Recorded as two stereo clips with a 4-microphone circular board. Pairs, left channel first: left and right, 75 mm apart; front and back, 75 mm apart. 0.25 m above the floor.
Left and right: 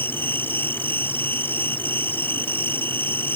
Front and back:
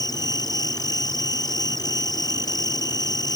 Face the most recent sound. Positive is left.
turn(degrees=30)